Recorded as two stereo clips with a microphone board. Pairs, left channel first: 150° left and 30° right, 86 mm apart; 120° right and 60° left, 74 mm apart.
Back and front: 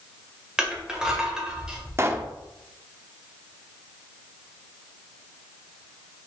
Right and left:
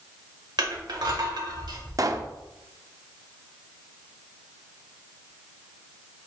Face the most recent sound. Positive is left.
turn(degrees=25)